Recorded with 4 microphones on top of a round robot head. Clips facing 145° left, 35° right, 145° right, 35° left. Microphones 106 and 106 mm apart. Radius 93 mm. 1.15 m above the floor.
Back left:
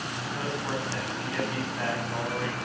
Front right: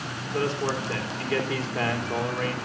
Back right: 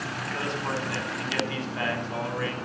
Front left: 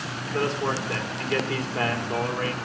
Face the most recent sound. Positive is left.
turn(degrees=-15)